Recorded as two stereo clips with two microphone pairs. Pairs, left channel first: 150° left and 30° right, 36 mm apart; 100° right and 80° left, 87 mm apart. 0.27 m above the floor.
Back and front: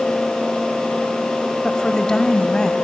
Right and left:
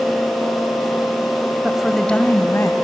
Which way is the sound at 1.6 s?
125° left.